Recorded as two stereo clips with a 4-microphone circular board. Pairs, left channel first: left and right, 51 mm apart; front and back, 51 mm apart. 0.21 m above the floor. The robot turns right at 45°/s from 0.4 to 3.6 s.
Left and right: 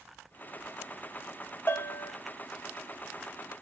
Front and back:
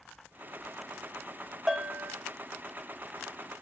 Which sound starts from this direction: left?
A bell, at 1.7 s.